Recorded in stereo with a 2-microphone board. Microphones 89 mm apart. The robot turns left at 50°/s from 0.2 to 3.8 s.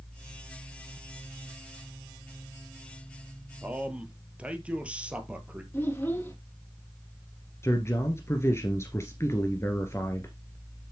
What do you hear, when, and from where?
3.6 s a man speaking: 20° right (ahead or behind), 2 m; by 5.6 s 15° right (ahead or behind), 2 m
5.7 s a child speaking: 20° left (ahead or behind), 3 m
7.6 s a man speaking: 30° left (ahead or behind), 1.7 m